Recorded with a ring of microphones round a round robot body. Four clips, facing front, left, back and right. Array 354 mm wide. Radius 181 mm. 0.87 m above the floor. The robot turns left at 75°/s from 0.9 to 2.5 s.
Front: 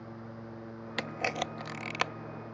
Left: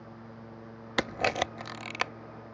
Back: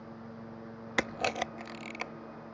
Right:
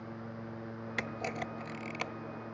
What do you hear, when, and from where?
1.0 s a camera shutter: 120° left; by 2.1 s 35° left